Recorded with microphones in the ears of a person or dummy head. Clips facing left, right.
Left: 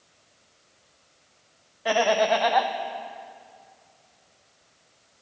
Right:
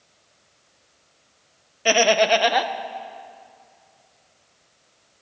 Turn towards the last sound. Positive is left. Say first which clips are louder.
# right 3 dB
turn(degrees=-35)  # may be behind; listen again after turning